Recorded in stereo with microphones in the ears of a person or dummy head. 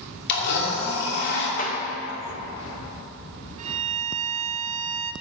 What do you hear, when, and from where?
0.3 s a blender: 60° left (ahead or behind), 2.5 m
1.6 s a clap: 40° left (ahead or behind), 1.6 m
3.6 s a violin: 40° right (ahead or behind), 0.6 m